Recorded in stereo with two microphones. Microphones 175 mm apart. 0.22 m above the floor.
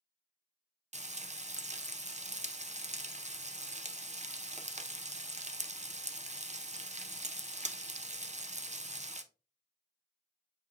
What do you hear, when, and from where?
0.9 s frying: 40° right (ahead or behind), 0.5 m